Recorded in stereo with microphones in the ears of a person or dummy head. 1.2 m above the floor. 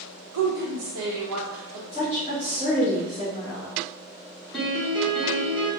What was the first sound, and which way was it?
A woman speaking, 80° right.